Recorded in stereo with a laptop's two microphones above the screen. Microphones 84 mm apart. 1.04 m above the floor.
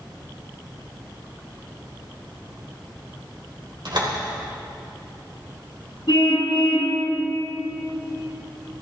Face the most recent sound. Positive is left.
turn(degrees=60)  # may be behind; listen again after turning